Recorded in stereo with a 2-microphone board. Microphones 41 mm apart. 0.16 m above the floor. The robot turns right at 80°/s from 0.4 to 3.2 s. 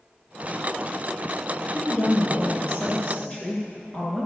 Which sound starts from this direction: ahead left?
A woman speaking, at 1.7 s.